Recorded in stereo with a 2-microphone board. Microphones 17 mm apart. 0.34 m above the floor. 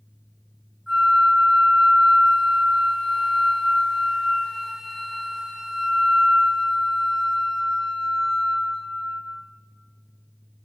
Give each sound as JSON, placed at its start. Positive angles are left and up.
{"t": 0.9, "sound": "a flute", "side_deg": 10, "distance_m": 1.1}